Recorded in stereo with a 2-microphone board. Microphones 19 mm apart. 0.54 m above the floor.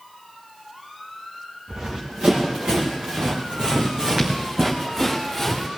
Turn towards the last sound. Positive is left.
turn(degrees=-10)  # may be behind; listen again after turning